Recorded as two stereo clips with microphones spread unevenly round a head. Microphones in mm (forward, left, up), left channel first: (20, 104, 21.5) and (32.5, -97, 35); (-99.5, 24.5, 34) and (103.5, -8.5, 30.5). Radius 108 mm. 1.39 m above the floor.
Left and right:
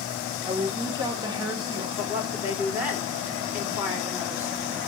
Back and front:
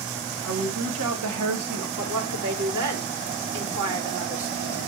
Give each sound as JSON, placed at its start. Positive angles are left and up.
{"t": 0.4, "sound": "a woman speaking", "azimuth_deg": -15, "distance_m": 1.6}
{"t": 2.0, "sound": "a woman speaking", "azimuth_deg": -5, "distance_m": 3.0}